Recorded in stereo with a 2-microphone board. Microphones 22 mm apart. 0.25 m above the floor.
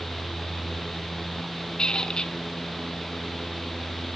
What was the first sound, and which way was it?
A squeak, 45° left (ahead or behind).